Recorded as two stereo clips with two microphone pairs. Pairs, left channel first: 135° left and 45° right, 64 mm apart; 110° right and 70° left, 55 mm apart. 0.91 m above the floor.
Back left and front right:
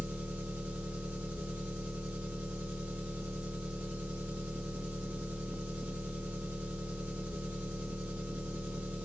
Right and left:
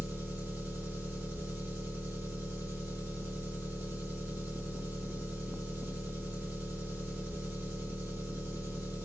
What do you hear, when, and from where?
0.0 s an engine running: 20° left, 5 m